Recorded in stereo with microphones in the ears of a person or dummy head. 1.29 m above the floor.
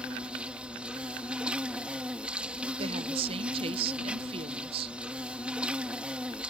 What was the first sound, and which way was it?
An insect, 5° right (ahead or behind).